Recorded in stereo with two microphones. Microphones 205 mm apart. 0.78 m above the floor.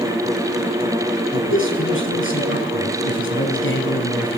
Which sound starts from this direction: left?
A man speaking, at 1.3 s.